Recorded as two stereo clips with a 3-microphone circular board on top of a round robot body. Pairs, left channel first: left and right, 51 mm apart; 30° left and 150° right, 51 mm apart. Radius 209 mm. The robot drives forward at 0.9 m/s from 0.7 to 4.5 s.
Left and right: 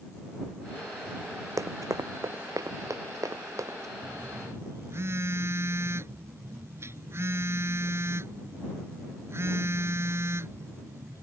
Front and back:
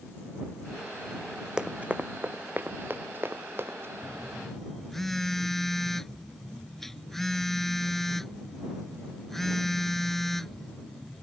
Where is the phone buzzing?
50° right; by 11.2 s 55° right.